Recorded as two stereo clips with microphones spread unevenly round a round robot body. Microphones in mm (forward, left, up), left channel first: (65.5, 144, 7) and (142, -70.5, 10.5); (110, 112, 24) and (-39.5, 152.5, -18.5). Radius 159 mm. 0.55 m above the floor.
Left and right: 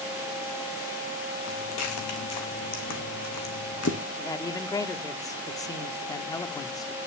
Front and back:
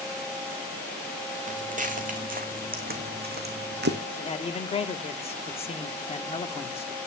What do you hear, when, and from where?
1.5 s footsteps: 120° left, 3 m; by 4.0 s 155° left, 2 m
4.2 s a man speaking: 40° left, 1.3 m